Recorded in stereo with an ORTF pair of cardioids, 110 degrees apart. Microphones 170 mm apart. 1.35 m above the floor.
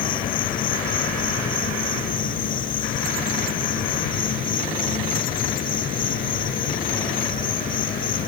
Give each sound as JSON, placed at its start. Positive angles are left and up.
{"t": 0.0, "sound": "an insect", "azimuth_deg": 55}